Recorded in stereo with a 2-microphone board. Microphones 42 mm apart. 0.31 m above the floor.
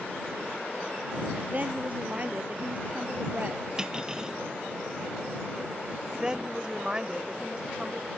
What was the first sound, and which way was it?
A woman speaking, 35° right (ahead or behind).